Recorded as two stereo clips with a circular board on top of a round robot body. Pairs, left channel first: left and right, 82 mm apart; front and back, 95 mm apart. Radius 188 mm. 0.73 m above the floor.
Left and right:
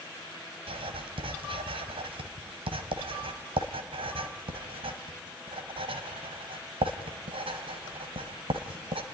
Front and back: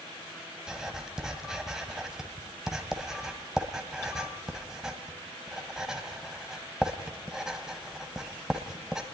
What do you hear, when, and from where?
0.7 s writing: 95° right, 1.7 m